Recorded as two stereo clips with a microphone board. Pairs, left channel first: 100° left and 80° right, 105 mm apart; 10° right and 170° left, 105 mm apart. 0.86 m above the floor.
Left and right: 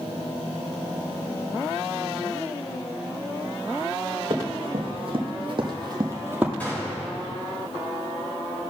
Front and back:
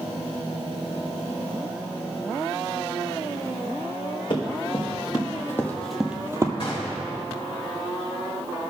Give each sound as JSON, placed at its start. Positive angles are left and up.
{"t": 4.3, "sound": "running footsteps", "azimuth_deg": -45, "distance_m": 2.5}
{"t": 6.6, "sound": "a gunshot", "azimuth_deg": 25, "distance_m": 2.5}